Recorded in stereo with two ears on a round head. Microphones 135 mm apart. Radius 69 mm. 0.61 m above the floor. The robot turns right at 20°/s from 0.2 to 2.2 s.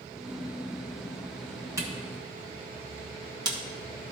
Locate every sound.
1.8 s a camera shutter: 20° right (ahead or behind), 1.4 m; by 3.6 s 25° right (ahead or behind), 1.4 m